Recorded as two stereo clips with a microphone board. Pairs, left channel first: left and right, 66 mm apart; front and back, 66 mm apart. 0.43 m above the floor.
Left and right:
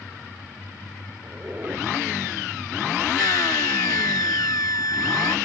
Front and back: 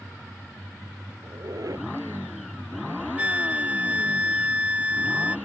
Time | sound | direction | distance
1.2 | a squeak | 150° right | ?
3.2 | a flute | 110° left | ?